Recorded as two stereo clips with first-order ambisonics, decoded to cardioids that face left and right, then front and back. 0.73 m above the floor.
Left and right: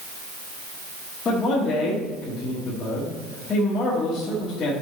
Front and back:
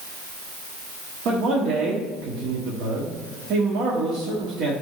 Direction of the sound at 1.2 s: 155° left.